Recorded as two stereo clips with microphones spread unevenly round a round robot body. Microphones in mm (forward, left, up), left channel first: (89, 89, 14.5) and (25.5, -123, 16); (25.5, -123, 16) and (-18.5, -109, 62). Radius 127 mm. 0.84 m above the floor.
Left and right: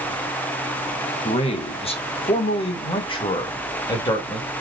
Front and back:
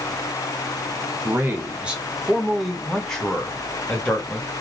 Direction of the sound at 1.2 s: 45° left.